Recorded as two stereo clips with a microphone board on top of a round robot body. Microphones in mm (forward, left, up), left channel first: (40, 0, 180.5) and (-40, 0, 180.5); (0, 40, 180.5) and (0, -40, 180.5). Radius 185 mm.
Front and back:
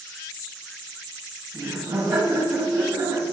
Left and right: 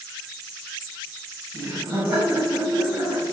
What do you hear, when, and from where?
1.5 s laughter: 125° right, 3.5 m